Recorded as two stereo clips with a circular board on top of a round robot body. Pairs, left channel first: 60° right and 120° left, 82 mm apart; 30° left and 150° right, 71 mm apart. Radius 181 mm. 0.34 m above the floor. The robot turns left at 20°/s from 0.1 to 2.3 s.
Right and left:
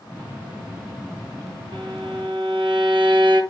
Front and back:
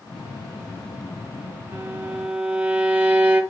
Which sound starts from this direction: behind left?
A violin, at 1.7 s.